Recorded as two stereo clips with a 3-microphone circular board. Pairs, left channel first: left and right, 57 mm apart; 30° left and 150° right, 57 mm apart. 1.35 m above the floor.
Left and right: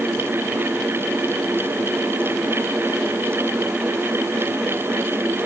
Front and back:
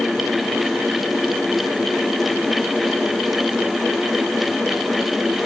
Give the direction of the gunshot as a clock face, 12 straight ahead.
I don't hear a gunshot.